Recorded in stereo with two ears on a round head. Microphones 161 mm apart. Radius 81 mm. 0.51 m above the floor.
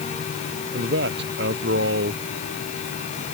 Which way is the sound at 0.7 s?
65° right (ahead or behind).